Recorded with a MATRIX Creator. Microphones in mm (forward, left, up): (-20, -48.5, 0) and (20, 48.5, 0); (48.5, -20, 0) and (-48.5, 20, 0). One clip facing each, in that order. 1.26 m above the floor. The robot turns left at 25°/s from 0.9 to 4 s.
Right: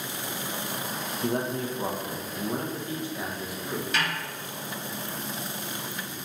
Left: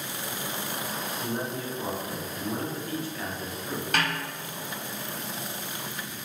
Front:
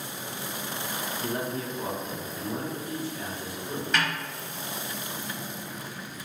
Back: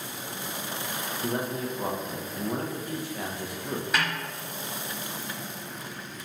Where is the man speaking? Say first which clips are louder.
Right 6 dB, back 2 dB; 135° right, 0.8 m; by 3.8 s 155° left, 0.8 m.